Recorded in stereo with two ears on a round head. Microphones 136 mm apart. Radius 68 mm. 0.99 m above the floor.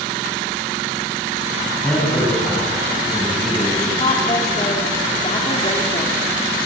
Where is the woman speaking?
35° left (ahead or behind), 2.5 m.